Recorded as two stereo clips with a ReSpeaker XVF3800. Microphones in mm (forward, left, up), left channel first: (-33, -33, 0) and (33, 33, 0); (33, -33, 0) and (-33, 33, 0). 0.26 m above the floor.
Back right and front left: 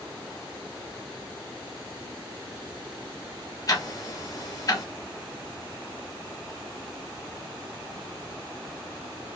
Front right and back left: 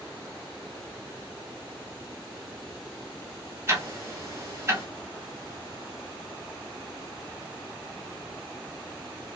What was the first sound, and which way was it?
Ticking, 175° right.